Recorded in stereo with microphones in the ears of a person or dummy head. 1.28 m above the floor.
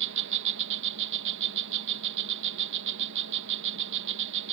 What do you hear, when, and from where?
0.0 s an insect: 65° right (ahead or behind)